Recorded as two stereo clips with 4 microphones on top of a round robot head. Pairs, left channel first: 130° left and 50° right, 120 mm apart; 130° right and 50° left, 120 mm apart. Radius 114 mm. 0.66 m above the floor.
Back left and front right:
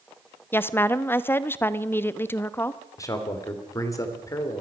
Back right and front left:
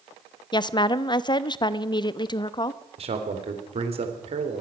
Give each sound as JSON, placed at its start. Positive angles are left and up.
{"t": 0.5, "sound": "a woman speaking", "azimuth_deg": -165, "distance_m": 0.8}
{"t": 3.0, "sound": "a man speaking", "azimuth_deg": 70, "distance_m": 3.0}